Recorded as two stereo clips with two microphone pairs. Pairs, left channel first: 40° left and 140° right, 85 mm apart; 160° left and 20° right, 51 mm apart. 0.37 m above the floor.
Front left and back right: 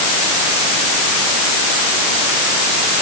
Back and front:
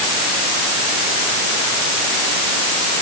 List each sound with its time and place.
Only background noise.